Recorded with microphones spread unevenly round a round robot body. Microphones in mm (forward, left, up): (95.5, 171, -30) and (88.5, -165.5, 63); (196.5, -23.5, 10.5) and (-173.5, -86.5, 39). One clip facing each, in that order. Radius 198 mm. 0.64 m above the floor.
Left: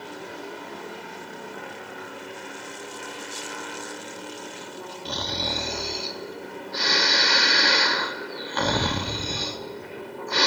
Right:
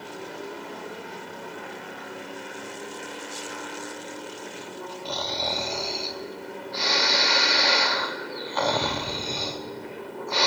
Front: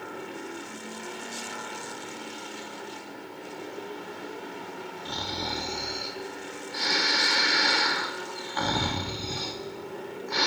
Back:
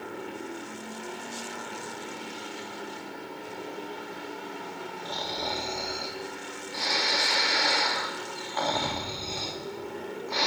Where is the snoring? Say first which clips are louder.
Left 1 dB, even; 60° left, 0.5 m.